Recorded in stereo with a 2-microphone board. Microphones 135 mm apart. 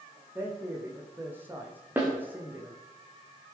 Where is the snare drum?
15° right (ahead or behind), 7.5 m.